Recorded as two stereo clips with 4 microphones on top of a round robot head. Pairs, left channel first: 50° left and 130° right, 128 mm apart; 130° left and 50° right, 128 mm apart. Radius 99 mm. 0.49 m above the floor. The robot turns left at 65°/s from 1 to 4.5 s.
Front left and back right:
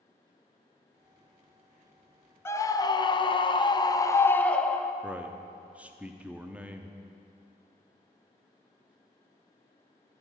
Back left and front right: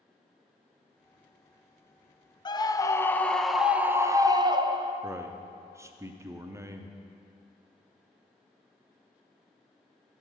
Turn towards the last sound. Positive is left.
turn(degrees=-65)